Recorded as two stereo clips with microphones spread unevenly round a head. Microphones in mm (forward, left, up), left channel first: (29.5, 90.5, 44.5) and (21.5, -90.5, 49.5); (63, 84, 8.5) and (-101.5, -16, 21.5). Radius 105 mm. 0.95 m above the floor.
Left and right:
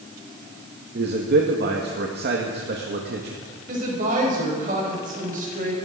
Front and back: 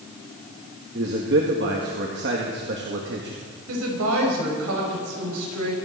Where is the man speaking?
115° right, 1.6 m.